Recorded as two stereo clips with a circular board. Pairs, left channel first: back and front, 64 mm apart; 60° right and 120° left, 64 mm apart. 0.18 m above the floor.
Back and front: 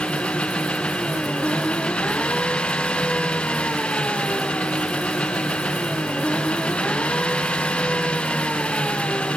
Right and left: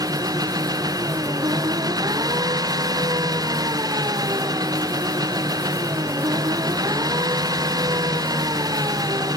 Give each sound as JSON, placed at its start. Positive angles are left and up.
{"t": 0.0, "sound": "an engine running", "azimuth_deg": 110}